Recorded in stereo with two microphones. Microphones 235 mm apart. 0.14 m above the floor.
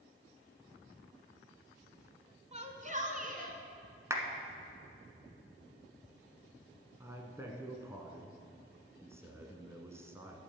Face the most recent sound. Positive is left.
turn(degrees=-10)  # may be behind; listen again after turning